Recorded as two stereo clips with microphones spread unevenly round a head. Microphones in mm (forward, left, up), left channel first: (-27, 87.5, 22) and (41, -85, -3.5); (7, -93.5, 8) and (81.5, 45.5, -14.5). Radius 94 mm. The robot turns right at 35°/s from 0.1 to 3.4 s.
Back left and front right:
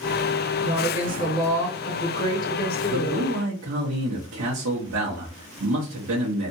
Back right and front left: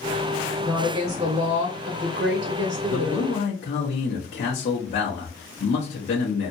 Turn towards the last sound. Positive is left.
turn(degrees=-80)